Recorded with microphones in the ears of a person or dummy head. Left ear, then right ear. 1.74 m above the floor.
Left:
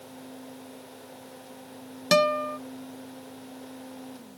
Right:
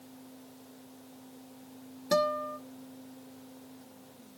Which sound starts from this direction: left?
A guitar, at 2.1 s.